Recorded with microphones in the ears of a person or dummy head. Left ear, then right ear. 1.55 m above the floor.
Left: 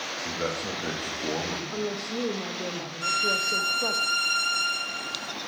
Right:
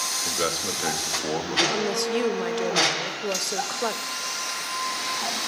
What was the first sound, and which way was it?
A man speaking, 75° right (ahead or behind).